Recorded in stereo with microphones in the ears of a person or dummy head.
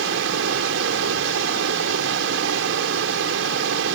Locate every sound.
0.0 s running water: 75° right (ahead or behind)